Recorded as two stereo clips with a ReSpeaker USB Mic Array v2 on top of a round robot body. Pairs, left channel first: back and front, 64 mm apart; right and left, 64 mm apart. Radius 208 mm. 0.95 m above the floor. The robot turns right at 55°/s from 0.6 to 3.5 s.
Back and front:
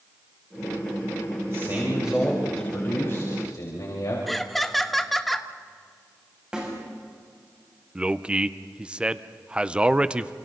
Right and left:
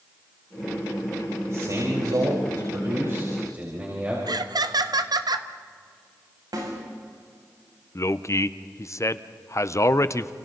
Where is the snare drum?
75° left, 7 m.